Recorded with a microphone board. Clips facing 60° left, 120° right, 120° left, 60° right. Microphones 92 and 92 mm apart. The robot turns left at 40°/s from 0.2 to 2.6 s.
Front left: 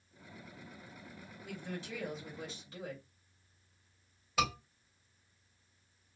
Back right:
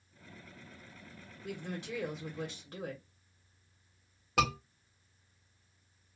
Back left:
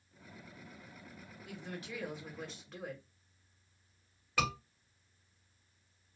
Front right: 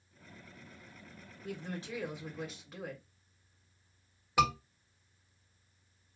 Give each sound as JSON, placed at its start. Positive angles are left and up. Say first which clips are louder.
{"t": 1.4, "sound": "a woman speaking", "louder": "back right 3 dB, front right 4 dB", "azimuth_deg": -105, "distance_m": 1.5}
{"t": 4.4, "sound": "a scream", "louder": "back right 3 dB, front right 6 dB", "azimuth_deg": -130, "distance_m": 1.5}